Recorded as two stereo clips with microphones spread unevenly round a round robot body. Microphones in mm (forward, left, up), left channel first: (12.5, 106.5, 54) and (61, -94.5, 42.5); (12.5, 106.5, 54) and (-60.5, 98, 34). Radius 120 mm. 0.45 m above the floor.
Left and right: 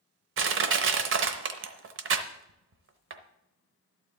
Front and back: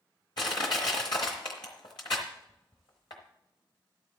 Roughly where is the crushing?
Ahead right.